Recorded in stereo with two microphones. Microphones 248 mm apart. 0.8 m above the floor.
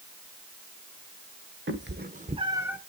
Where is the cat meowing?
50° right (ahead or behind), 0.9 m; by 2.8 s 5° right (ahead or behind), 0.9 m.